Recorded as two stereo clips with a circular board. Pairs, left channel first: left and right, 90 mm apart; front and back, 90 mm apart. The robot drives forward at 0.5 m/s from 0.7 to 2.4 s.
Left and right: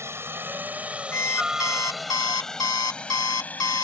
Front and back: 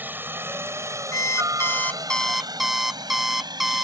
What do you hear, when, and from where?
0.0 s a helicopter: 125° right; by 3.9 s 155° left
1.1 s an alarm clock: 40° left; by 3.9 s 95° left